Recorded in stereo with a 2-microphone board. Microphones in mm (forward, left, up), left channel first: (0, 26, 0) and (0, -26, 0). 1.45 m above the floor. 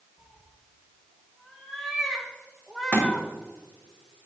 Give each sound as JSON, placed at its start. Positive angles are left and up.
{"t": 0.2, "sound": "a cat meowing", "side_deg": 0, "distance_m": 3.0}
{"t": 2.9, "sound": "a thud", "side_deg": 35, "distance_m": 2.0}